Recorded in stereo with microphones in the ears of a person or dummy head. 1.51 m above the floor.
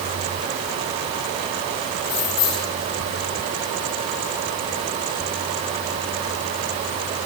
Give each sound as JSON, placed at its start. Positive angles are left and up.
{"t": 2.0, "sound": "keys jangling", "side_deg": 30, "distance_m": 3.5}